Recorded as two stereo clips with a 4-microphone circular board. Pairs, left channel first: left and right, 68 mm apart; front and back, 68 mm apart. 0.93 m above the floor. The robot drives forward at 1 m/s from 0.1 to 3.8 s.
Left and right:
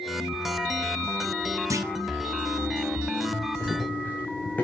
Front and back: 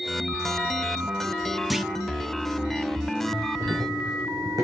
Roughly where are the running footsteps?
Behind.